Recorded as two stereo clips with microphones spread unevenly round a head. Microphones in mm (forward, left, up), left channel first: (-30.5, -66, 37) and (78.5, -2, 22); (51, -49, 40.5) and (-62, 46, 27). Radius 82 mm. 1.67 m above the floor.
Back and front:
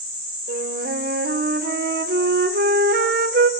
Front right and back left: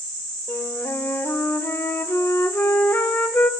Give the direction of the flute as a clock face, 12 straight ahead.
11 o'clock.